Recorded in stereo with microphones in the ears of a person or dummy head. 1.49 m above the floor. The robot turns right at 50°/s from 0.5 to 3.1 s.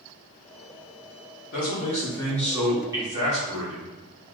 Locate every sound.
1.5 s a man speaking: 130° left, 1.6 m; by 3.9 s 150° right, 1.6 m